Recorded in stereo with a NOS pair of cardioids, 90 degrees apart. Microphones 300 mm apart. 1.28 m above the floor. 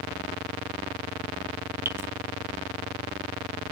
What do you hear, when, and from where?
1.9 s dripping: 5° right, 1.4 m